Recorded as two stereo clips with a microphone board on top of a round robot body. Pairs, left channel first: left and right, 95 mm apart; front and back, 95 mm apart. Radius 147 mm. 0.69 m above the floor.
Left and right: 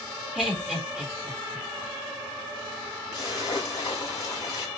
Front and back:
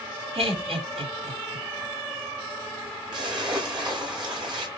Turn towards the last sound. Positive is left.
turn(degrees=140)